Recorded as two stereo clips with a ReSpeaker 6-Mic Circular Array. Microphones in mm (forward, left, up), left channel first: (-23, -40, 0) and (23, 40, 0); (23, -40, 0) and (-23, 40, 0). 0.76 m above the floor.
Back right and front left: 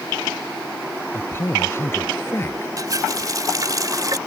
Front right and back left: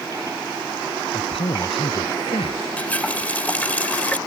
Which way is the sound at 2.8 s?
10° left.